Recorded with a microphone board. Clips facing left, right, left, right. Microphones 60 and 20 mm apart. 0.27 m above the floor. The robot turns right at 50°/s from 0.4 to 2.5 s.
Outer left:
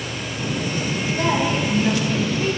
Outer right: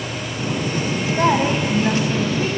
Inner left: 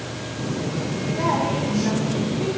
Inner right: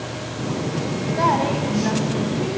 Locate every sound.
1.2 s a woman speaking: 75° right, 1.3 m; by 2.5 s 10° right, 1.3 m